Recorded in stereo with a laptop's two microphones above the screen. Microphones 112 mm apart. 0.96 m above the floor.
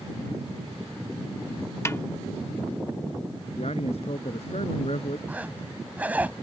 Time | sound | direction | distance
1.9 | a snare drum | 25° left (ahead or behind) | ?
3.6 | a man speaking | 65° left (ahead or behind) | ?
5.3 | a zipper | 15° right (ahead or behind) | ?